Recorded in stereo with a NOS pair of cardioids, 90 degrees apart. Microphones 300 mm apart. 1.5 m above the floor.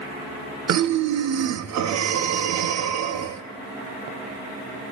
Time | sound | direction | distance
0.7 | breathing | 60° right | 1.1 m